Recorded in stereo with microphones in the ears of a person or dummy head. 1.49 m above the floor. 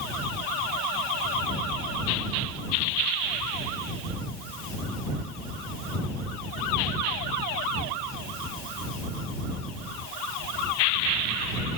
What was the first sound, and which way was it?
Only background noise.